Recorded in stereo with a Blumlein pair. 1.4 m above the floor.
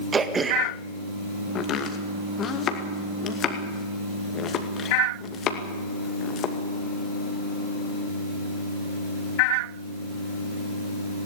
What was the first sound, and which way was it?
Throat clearing, 15° right.